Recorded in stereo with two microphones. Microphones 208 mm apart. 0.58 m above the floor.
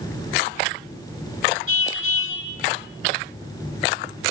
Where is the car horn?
80° left, 2 m.